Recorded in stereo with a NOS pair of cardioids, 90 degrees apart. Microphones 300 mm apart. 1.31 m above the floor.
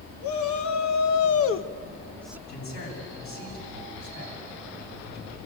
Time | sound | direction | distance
0.2 | a shout | 65° left | 1.9 m
2.5 | a man speaking | 65° left | 8.5 m